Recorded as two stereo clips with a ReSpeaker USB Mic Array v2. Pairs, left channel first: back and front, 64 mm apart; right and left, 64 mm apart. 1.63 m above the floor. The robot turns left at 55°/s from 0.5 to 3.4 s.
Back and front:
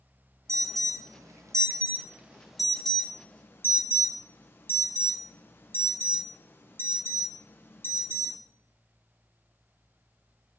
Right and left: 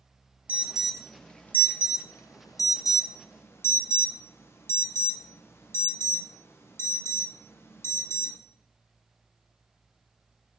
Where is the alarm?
30° left, 0.7 m; by 8.4 s 130° right, 0.7 m.